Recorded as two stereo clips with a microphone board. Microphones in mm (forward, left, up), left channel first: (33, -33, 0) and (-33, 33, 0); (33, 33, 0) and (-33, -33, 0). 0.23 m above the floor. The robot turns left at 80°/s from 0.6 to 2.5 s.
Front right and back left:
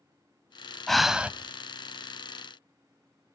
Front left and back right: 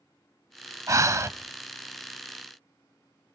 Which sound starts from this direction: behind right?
Breathing, at 0.9 s.